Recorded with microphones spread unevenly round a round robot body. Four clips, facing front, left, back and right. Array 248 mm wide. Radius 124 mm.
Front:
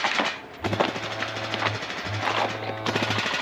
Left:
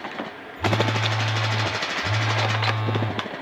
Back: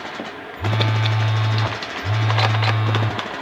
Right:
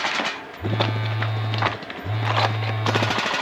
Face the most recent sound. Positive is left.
turn(degrees=175)